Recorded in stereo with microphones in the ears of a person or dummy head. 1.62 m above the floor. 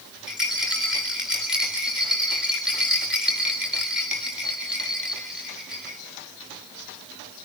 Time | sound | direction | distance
0.3 | a rattle | centre (ahead or behind) | 4 m